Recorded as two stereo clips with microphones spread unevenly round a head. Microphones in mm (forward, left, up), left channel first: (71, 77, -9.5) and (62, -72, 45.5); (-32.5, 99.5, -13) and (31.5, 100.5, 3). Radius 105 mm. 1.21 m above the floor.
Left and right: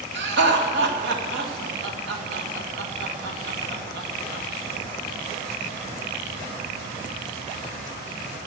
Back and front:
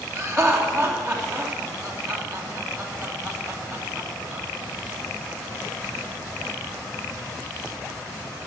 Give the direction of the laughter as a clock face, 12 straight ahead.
3 o'clock.